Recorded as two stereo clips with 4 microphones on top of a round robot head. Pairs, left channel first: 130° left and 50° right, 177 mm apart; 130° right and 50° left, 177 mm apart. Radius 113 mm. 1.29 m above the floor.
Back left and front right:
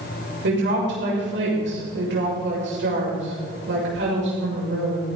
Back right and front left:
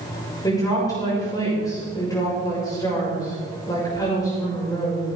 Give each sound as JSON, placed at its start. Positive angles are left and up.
{"t": 0.4, "sound": "a woman speaking", "azimuth_deg": -60, "distance_m": 6.5}